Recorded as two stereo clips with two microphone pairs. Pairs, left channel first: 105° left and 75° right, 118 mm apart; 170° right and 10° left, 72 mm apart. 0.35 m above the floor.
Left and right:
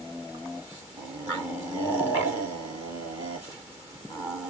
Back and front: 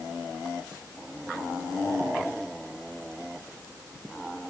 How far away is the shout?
No shout in this recording.